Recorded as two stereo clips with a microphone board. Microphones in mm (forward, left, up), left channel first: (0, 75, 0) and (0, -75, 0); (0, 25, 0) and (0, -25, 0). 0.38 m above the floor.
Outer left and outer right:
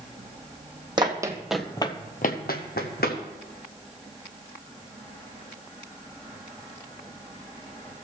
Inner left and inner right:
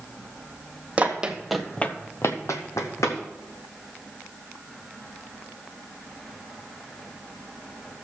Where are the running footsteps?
30° right (ahead or behind), 1.3 m; by 3.2 s 75° left (ahead or behind), 1.8 m.